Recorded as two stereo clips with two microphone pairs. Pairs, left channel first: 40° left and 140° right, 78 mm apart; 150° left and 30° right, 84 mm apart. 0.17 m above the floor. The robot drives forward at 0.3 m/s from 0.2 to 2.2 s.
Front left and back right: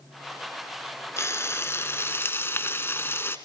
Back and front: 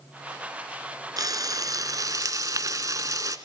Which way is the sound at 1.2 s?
5° right.